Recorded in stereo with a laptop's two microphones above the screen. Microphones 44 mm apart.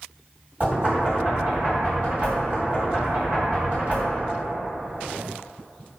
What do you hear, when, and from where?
0.6 s knocking: 40° right (ahead or behind), 1.8 m